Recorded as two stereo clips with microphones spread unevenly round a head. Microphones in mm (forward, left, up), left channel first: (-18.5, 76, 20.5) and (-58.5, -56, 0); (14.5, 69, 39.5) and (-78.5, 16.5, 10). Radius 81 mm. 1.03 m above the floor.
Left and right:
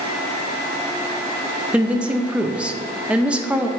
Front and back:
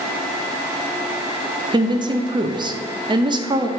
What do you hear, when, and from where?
1.7 s a woman speaking: 175° left, 0.8 m